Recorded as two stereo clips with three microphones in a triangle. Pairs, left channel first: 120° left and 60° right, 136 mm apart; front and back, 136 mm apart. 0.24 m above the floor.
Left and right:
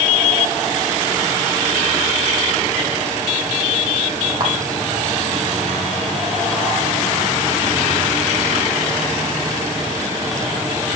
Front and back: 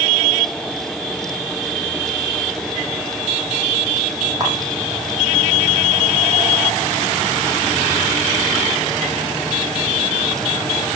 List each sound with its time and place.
4.4 s a camera shutter: 115° right, 6 m